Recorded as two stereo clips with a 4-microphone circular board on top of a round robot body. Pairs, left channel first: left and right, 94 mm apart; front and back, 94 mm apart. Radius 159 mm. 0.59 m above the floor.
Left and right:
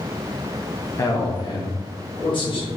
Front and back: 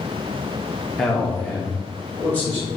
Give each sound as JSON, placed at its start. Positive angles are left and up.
{"t": 1.0, "sound": "a man speaking", "azimuth_deg": 85, "distance_m": 0.8}